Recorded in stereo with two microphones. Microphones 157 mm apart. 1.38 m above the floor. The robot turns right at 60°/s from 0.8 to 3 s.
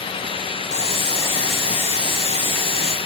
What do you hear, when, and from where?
0.7 s boiling: 135° left, 1.1 m; by 3.0 s 95° right, 1.1 m